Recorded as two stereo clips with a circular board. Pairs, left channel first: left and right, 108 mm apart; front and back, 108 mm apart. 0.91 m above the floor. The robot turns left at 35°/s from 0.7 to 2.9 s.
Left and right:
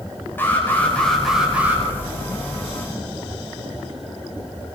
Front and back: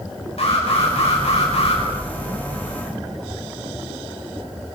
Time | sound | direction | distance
0.4 | an alarm | 20° left | 6 m